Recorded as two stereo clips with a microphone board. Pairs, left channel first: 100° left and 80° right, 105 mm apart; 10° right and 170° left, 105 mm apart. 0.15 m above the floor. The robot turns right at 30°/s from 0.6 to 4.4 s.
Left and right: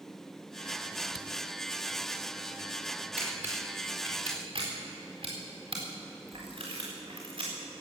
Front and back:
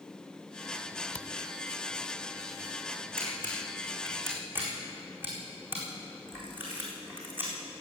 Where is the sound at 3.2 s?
155° right, 4.5 m; by 7.8 s 120° right, 4.5 m.